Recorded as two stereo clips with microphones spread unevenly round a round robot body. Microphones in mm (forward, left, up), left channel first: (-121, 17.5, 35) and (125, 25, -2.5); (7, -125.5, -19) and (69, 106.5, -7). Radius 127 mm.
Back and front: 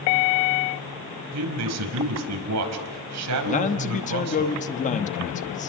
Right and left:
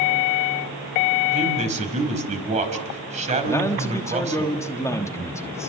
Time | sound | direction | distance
1.3 | a man speaking | 15° left | 4.5 m
3.5 | a man speaking | 155° right | 1.2 m